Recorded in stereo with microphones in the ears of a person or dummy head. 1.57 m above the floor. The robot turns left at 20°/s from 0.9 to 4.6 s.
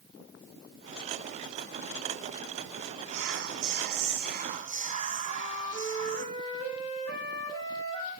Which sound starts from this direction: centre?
A flute, at 5.2 s.